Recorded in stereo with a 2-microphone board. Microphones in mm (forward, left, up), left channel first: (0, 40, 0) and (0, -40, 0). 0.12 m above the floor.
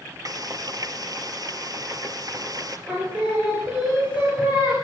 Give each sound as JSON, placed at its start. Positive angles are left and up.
{"t": 0.2, "sound": "frying", "side_deg": -55, "distance_m": 1.4}
{"t": 2.9, "sound": "singing", "side_deg": -20, "distance_m": 7.0}